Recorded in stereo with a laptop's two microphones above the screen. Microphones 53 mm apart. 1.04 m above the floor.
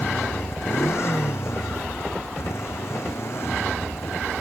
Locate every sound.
0.0 s a motorcycle: 55° left (ahead or behind)